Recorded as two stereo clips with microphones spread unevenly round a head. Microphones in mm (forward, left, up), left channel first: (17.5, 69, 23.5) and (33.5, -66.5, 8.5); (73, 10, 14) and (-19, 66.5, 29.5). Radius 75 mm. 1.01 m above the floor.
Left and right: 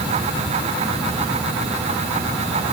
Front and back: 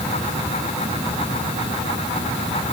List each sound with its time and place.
Only background noise.